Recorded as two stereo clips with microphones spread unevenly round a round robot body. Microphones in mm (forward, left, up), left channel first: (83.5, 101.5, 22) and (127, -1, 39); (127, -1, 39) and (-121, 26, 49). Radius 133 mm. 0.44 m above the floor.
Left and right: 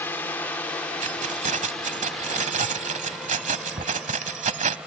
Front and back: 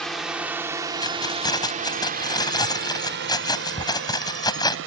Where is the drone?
75° left; by 4.9 s 155° right.